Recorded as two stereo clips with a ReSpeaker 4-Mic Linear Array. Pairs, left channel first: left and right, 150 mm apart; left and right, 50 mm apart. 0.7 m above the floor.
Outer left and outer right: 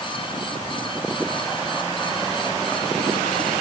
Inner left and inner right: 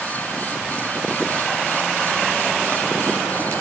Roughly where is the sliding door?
No sliding door in this recording.